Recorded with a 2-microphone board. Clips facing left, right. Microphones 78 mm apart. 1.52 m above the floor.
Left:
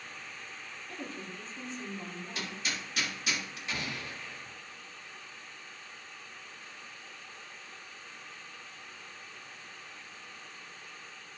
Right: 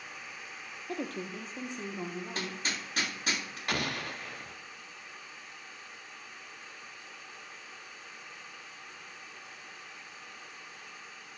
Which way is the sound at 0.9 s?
70° right (ahead or behind).